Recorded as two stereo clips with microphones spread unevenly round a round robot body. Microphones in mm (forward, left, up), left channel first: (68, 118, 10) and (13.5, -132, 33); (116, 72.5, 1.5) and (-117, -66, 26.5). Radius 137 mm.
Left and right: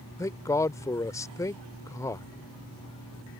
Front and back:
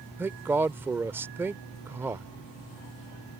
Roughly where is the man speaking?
Behind left.